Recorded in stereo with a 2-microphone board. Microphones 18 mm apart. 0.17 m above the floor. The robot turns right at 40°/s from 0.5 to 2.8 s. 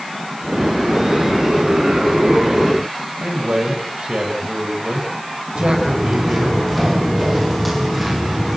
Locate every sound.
3.2 s a man speaking: 75° right (ahead or behind), 7 m
5.5 s footsteps: 10° left (ahead or behind), 8 m; by 8.6 s 5° right (ahead or behind), 8 m